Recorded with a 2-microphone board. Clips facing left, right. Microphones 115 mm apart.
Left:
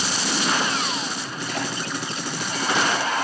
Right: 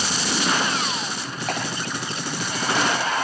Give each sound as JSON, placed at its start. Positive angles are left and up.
{"t": 1.5, "sound": "a clap", "side_deg": -75, "distance_m": 7.5}